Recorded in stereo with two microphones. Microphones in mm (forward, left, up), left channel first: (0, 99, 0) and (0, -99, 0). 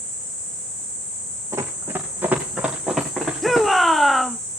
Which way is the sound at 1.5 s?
15° right (ahead or behind).